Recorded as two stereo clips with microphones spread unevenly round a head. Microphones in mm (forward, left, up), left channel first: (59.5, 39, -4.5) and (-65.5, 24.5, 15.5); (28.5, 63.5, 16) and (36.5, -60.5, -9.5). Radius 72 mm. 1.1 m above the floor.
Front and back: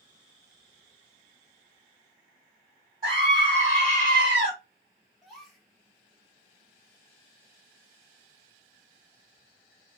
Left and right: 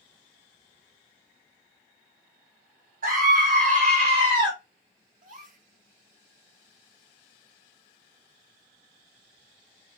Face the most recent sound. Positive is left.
turn(degrees=-80)